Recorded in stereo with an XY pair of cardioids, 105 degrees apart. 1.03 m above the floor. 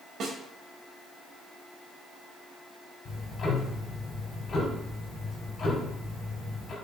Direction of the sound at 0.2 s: 70° right.